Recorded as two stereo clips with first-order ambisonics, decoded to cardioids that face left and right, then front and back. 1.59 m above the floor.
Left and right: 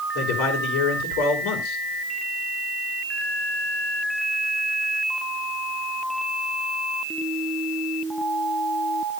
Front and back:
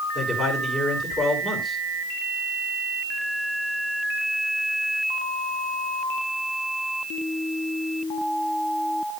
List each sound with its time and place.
0.1 s a man speaking: 95° left, 3 m